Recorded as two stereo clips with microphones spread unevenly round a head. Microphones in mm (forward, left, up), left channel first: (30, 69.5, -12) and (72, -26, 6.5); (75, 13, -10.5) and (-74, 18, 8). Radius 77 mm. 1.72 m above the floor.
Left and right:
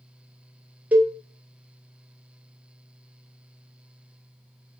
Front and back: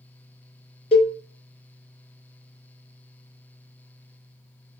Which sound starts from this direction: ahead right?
A cowbell, at 0.9 s.